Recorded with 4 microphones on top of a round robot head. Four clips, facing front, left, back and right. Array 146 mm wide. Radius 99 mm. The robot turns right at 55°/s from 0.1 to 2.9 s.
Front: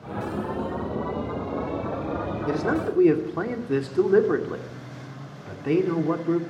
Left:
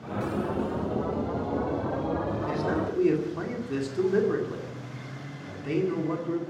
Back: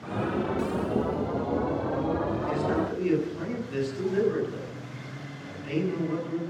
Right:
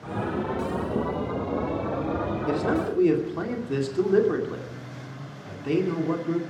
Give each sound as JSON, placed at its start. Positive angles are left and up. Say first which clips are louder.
{"t": 2.5, "sound": "a man speaking", "louder": "right 6 dB, front 6 dB", "azimuth_deg": -40, "distance_m": 2.5}